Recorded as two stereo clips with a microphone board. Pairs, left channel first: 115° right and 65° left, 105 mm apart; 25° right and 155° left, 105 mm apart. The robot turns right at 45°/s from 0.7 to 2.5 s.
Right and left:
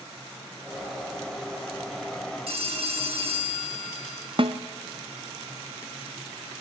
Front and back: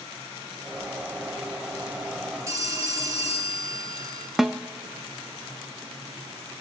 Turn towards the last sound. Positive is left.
turn(degrees=70)